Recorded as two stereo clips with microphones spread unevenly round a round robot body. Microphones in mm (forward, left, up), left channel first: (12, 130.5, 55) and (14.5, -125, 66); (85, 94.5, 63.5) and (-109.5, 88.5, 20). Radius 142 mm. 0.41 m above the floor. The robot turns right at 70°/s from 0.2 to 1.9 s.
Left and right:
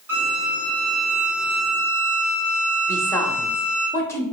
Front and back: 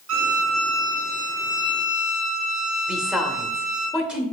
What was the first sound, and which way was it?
A violin, 170° right.